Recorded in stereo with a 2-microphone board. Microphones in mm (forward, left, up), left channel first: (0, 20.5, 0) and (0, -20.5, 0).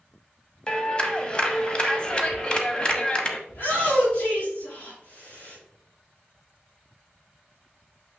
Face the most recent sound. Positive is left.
turn(degrees=50)  # may be behind; listen again after turning